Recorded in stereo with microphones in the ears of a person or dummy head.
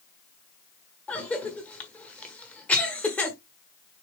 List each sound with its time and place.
1.1 s a cough: 5° left (ahead or behind), 1.3 m